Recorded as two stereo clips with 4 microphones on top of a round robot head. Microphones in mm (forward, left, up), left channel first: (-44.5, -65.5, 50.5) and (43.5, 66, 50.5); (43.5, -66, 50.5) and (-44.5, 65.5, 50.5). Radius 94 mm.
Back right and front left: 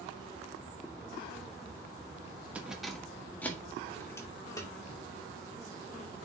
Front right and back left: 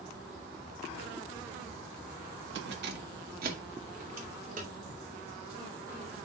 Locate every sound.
2.5 s keys jangling: 140° left, 1.1 m; by 5.6 s 170° left, 3 m